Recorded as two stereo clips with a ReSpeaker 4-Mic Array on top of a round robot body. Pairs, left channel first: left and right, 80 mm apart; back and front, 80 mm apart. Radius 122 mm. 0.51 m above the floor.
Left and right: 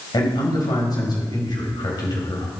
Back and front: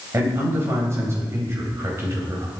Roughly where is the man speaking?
Ahead left.